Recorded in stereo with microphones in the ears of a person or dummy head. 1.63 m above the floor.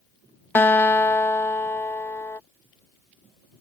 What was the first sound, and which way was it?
A guitar, 10° left (ahead or behind).